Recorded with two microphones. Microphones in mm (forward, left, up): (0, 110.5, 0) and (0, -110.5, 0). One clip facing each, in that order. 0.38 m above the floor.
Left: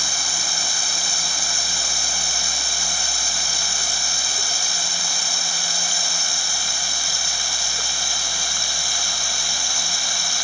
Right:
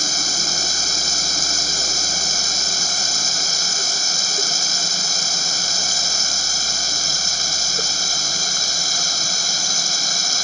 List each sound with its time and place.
0.0 s running water: 45° right (ahead or behind)